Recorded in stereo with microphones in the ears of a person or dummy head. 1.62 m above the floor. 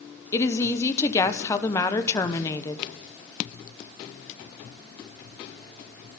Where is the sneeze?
I don't hear a sneeze.